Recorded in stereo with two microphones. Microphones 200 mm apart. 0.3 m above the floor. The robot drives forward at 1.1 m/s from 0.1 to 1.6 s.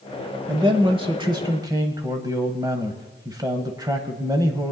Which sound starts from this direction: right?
A man speaking, at 0.5 s.